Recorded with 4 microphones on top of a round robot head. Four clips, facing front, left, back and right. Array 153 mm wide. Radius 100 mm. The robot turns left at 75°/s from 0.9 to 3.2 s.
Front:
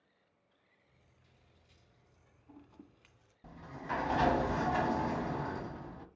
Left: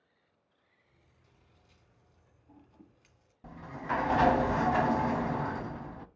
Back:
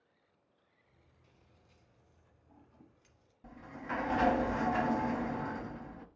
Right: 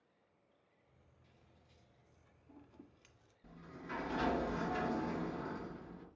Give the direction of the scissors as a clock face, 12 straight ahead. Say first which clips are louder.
Left 2 dB, back 3 dB; 8 o'clock.